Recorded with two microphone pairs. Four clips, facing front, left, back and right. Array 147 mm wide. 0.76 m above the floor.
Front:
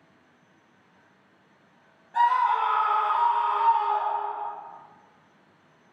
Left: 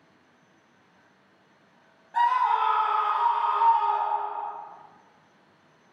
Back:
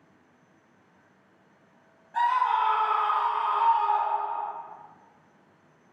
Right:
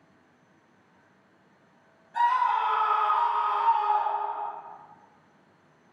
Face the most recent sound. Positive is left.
turn(degrees=5)